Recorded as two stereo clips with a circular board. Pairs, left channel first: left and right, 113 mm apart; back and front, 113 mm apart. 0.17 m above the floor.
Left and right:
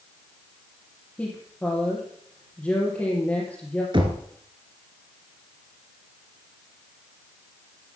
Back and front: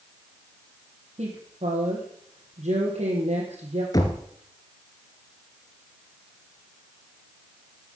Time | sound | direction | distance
1.2 | a woman speaking | 15° left | 3 m
3.9 | knocking | 125° right | 1.7 m